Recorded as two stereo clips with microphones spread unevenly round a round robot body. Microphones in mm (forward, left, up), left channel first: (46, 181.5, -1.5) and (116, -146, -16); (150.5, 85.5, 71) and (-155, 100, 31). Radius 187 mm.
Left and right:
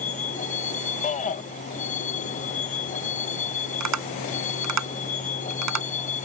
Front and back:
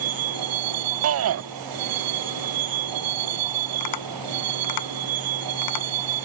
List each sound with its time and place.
0.0 s a vehicle: 175° left
1.0 s a shout: 170° left
3.8 s tapping: 40° right